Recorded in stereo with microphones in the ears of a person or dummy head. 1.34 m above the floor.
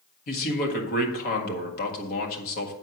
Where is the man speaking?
45° left (ahead or behind), 1.7 m.